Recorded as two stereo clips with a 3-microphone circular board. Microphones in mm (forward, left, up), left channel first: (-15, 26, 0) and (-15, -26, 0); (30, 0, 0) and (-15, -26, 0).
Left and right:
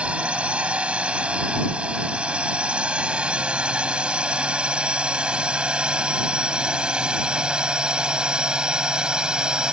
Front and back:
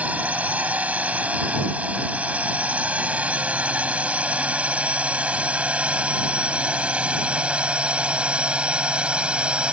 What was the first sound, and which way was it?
A drone, 130° right.